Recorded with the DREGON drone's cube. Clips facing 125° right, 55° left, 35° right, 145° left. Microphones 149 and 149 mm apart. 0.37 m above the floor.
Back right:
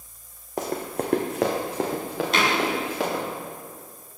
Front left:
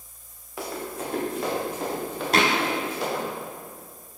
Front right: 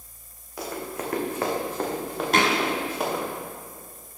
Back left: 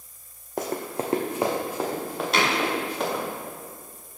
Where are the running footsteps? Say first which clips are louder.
Back right 5 dB, back left 4 dB; 175° right, 1.0 m; by 3.2 s 115° right, 2.5 m.